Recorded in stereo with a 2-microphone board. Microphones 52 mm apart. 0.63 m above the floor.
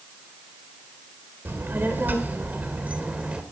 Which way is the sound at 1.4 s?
50° right (ahead or behind).